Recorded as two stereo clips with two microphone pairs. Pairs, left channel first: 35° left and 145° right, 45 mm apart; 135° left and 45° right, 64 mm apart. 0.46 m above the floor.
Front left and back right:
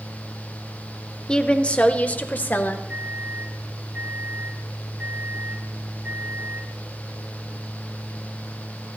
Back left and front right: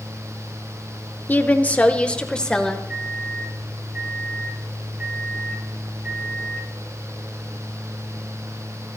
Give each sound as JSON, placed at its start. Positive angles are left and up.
{"t": 1.3, "sound": "a woman speaking", "azimuth_deg": 100, "distance_m": 1.2}
{"t": 2.9, "sound": "a microwave", "azimuth_deg": -110, "distance_m": 3.5}